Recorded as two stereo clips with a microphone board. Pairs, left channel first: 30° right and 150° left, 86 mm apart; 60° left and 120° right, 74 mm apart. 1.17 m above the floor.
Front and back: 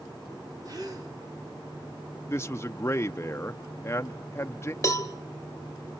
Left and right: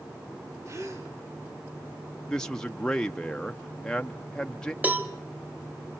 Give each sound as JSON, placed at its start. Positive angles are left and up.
{"t": 0.7, "sound": "a gasp", "azimuth_deg": -170, "distance_m": 3.0}
{"t": 2.3, "sound": "a man speaking", "azimuth_deg": -10, "distance_m": 0.5}
{"t": 4.8, "sound": "a cowbell", "azimuth_deg": -65, "distance_m": 1.2}